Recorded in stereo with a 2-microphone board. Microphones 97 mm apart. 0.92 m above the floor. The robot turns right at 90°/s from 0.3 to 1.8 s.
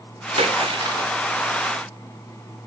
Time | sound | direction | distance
0.4 | a splash | 95° right | 1.6 m